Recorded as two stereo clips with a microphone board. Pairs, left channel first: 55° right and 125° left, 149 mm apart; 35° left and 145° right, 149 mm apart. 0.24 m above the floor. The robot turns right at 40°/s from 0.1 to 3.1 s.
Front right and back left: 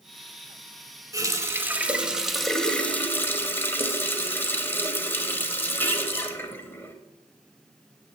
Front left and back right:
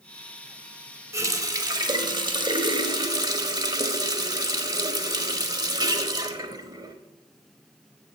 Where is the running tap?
165° left, 1.0 m; by 7.0 s 115° right, 1.0 m.